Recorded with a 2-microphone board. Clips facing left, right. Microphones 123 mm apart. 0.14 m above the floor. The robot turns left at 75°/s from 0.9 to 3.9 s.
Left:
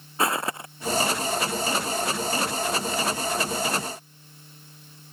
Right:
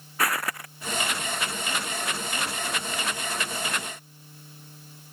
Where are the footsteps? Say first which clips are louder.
Left 3 dB; 25° left (ahead or behind).